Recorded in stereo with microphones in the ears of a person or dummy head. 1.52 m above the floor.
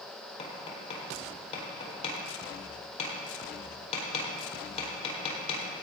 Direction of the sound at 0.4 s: 40° left (ahead or behind).